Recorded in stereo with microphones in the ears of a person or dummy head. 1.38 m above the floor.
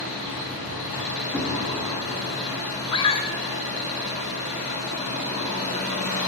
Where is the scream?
25° left (ahead or behind), 0.6 m.